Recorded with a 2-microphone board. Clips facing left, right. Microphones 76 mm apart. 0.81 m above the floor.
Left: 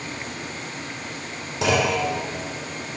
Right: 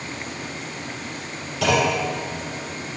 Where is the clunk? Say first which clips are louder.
Right 1 dB; 30° left (ahead or behind), 4 m.